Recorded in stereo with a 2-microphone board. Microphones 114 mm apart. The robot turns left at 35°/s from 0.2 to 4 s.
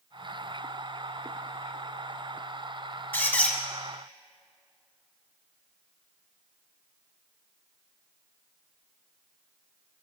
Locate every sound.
3.1 s a squeak: 20° left (ahead or behind), 0.7 m; by 3.6 s 10° left (ahead or behind), 0.7 m